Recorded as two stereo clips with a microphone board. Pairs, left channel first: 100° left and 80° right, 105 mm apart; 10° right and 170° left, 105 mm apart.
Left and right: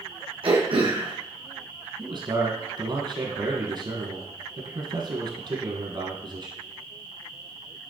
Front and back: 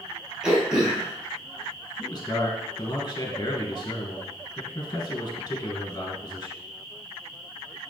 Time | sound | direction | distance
0.4 | throat clearing | 105° right | 2 m
2.0 | a man speaking | 55° right | 2.5 m